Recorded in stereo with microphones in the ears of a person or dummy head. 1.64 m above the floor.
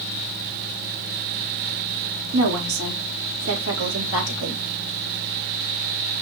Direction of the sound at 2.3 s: 85° right.